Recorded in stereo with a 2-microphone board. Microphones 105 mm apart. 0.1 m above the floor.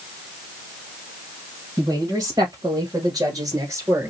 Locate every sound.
1.8 s a woman speaking: 35° right (ahead or behind), 2.5 m; by 4.1 s 25° right (ahead or behind), 1.8 m